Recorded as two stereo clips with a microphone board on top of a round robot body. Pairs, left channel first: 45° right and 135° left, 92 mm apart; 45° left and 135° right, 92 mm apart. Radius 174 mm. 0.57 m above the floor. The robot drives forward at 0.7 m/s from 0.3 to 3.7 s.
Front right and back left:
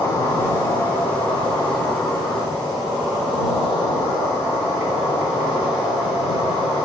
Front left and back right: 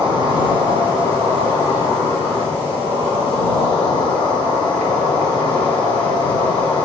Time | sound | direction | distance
0.0 | an insect | 105° right | 2 m